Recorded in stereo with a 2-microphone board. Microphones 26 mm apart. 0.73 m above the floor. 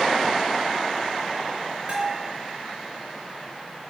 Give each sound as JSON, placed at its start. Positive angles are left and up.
{"t": 1.9, "sound": "a bell", "side_deg": -40, "distance_m": 3.5}